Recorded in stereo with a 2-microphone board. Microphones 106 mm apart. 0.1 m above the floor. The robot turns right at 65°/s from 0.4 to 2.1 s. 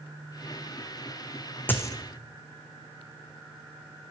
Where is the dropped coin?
20° left (ahead or behind), 0.5 m; by 1.9 s 35° left (ahead or behind), 0.5 m.